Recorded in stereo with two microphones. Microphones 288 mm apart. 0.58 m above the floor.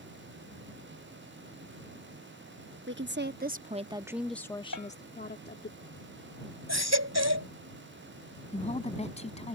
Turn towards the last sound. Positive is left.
turn(degrees=20)  # may be behind; listen again after turning